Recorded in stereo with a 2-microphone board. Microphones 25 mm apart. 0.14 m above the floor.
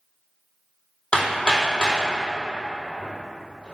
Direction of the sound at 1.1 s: 50° left (ahead or behind).